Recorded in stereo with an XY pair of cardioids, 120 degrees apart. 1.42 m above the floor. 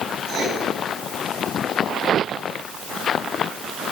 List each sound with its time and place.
0.3 s writing: 60° right, 5 m